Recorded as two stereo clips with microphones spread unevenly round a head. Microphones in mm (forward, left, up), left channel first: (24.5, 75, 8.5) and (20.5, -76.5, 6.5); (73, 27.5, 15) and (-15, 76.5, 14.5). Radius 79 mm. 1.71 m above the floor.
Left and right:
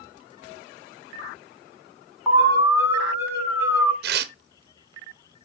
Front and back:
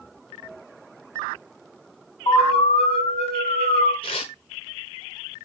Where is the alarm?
15° right, 3.5 m.